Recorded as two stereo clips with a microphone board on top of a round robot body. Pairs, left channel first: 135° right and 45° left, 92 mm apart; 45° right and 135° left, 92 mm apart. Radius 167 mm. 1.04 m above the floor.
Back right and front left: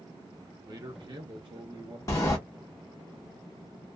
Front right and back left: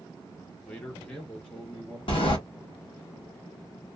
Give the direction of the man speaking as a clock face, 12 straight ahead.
11 o'clock.